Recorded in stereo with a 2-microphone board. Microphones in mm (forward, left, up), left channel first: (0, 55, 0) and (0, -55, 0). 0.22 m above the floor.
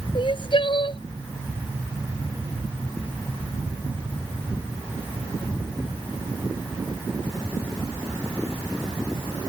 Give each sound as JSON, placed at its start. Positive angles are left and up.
{"t": 0.1, "sound": "crying", "side_deg": 50}